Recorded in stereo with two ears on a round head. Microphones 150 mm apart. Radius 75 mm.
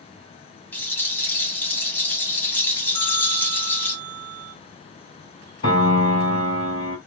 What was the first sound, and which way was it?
A rattle, 10° left (ahead or behind).